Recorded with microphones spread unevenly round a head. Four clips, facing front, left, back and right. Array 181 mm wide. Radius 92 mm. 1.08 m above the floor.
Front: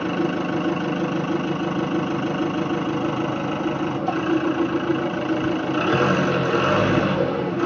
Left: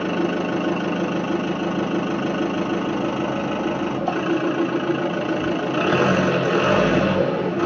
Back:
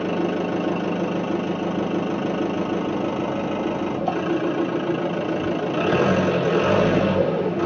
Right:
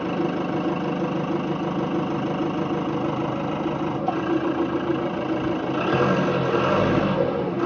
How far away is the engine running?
About 1.3 m.